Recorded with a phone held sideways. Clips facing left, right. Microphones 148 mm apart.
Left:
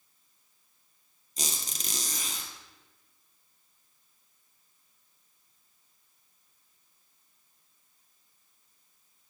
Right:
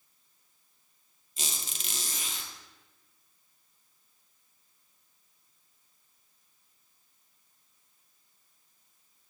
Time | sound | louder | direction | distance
1.4 | a squeak | left 3 dB | 40° left (ahead or behind) | 1.6 m